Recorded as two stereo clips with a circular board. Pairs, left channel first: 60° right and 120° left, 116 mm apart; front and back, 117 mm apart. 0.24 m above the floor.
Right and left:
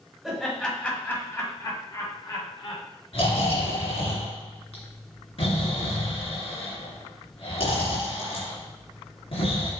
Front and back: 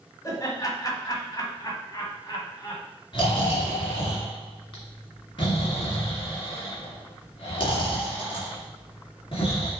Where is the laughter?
35° left, 1.6 m; by 2.8 s 45° right, 2 m.